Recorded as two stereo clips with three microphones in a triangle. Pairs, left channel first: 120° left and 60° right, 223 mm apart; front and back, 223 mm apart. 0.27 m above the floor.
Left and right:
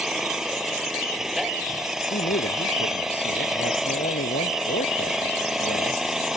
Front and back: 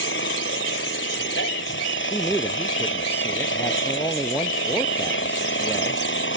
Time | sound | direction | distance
0.0 | an engine running | 30° left | ?
2.1 | a man speaking | 80° left | ?